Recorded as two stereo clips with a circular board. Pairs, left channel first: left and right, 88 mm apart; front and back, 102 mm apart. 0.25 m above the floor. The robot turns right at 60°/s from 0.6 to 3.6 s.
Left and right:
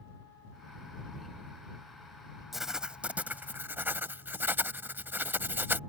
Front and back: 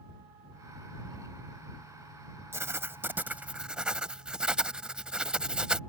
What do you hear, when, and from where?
2.5 s writing: 175° right; by 5.8 s 110° right